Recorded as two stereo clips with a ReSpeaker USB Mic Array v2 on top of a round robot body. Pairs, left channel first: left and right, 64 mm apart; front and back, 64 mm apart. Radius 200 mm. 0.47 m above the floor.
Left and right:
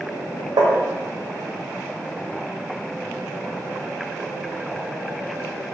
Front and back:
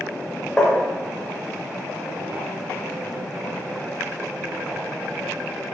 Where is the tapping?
80° right, 0.7 m.